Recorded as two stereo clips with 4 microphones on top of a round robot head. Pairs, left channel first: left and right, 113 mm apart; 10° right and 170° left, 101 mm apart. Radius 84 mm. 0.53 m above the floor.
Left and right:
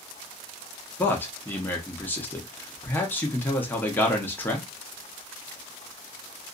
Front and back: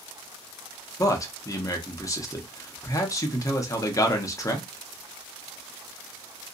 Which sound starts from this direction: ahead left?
A man speaking, at 1.0 s.